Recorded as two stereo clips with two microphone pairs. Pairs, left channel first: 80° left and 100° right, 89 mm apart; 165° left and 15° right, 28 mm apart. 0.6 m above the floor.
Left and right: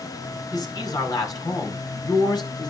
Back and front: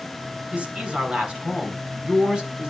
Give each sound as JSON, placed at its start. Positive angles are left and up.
{"t": 0.5, "sound": "a man speaking", "azimuth_deg": 35, "distance_m": 5.5}